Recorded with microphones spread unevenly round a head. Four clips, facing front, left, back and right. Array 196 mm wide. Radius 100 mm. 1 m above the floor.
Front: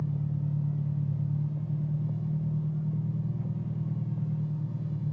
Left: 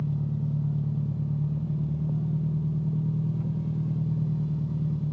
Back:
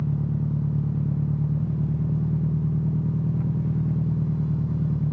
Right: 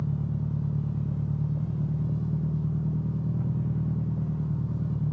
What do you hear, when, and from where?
0.0 s an engine running: 175° right, 0.8 m